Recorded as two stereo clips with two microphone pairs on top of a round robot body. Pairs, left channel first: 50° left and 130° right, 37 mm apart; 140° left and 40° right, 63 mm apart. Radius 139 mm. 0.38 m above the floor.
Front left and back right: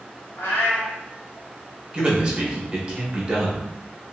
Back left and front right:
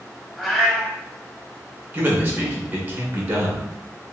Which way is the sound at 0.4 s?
50° left.